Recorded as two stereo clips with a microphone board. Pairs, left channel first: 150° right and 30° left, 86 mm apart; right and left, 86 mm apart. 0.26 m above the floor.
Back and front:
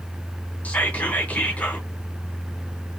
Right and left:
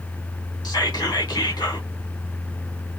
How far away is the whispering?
About 1.8 m.